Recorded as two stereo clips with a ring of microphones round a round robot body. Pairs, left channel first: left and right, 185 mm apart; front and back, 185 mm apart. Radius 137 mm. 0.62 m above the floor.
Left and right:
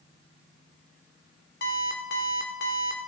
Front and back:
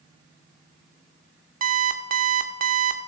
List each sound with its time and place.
1.6 s an alarm clock: 135° left, 1.0 m